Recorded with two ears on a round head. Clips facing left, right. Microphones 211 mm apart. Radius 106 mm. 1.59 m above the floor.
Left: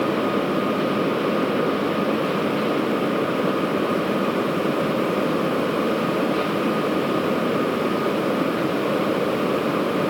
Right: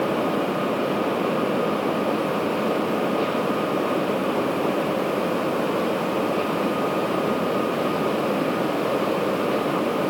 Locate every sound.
Only background noise.